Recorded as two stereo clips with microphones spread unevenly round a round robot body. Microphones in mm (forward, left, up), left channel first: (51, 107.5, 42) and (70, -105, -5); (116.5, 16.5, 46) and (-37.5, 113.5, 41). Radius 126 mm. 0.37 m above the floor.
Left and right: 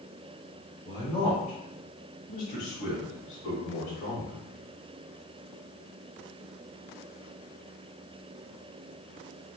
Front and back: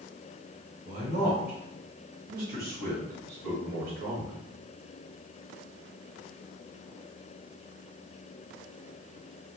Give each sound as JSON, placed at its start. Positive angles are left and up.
{"t": 0.8, "sound": "a man speaking", "azimuth_deg": 180, "distance_m": 1.5}